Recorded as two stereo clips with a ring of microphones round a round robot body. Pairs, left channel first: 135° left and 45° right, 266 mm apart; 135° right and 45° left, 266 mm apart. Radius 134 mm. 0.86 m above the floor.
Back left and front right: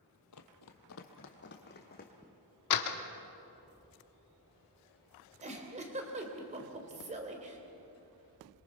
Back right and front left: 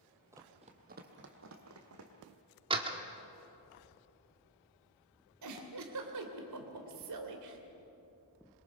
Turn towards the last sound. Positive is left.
turn(degrees=20)